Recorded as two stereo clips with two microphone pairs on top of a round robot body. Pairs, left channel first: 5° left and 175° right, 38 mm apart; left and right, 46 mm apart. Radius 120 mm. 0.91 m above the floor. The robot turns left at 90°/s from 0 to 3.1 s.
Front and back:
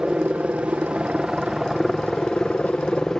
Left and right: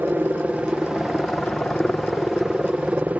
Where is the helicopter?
115° right; by 3.2 s 35° right.